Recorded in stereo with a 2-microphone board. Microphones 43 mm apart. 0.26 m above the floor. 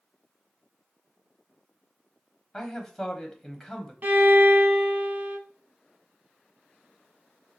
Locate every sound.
2.5 s a man speaking: 5° left (ahead or behind), 1.1 m
4.0 s a violin: 45° right (ahead or behind), 0.8 m